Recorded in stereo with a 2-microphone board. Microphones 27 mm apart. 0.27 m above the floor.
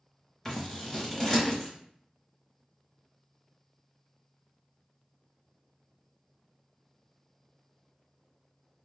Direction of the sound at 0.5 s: 5° left (ahead or behind).